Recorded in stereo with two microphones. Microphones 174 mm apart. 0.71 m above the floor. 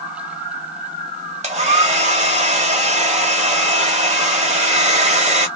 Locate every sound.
1.4 s a hair dryer: 40° right (ahead or behind), 1.1 m